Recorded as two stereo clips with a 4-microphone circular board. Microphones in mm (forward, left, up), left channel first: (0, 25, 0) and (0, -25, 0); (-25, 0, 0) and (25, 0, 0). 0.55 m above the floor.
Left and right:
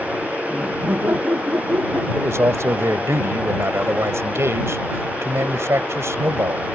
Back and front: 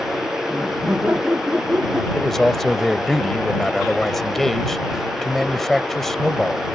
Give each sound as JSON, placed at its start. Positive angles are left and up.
{"t": 0.5, "sound": "laughter", "azimuth_deg": -55}
{"t": 2.1, "sound": "a man speaking", "azimuth_deg": -95}